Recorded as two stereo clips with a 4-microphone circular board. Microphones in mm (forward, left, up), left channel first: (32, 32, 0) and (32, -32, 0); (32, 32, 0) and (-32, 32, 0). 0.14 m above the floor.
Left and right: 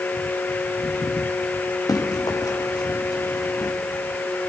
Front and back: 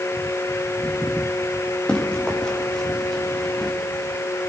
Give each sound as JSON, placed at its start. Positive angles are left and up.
{"t": 1.9, "sound": "running footsteps", "azimuth_deg": 75, "distance_m": 4.5}